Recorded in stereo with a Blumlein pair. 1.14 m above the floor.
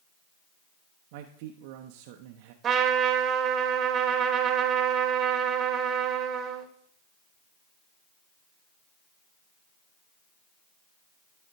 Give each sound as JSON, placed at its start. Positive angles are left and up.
{"t": 1.1, "sound": "a man speaking", "azimuth_deg": -45, "distance_m": 0.7}
{"t": 2.6, "sound": "a trumpet", "azimuth_deg": -25, "distance_m": 1.2}